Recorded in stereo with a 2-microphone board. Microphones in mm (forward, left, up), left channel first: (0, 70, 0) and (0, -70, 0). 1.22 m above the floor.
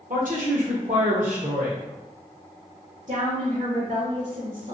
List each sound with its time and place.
0.1 s a woman speaking: 70° right (ahead or behind), 0.8 m
3.1 s a woman speaking: 60° right (ahead or behind), 1.1 m